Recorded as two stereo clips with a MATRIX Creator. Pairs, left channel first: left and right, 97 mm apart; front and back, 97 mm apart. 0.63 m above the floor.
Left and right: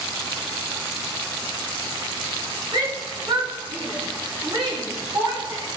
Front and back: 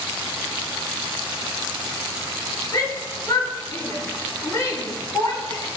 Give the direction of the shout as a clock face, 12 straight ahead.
2 o'clock.